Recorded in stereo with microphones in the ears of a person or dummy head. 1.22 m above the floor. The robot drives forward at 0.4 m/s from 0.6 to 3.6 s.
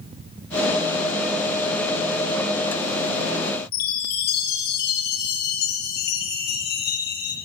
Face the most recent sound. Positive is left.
turn(degrees=45)  # may be behind; listen again after turning